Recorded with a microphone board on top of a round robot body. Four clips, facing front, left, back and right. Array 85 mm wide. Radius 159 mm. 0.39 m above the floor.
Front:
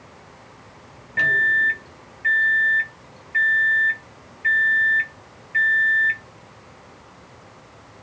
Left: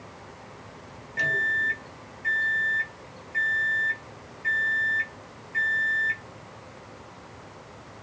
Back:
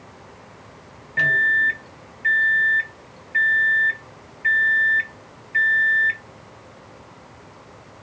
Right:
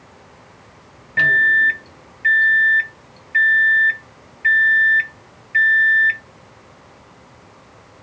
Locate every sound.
1.2 s a microwave: 90° right, 0.7 m